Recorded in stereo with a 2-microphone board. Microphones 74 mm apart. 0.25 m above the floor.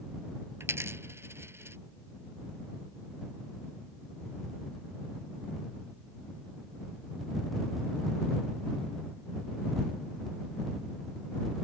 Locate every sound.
0.6 s a dropped coin: 35° right (ahead or behind)